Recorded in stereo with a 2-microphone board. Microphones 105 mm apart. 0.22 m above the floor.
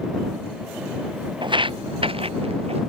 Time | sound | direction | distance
1.4 | footsteps | 50° right (ahead or behind) | ?